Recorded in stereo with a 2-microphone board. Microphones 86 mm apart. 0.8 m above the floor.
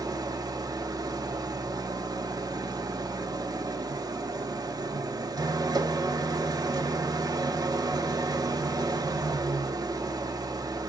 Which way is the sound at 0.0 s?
50° right (ahead or behind).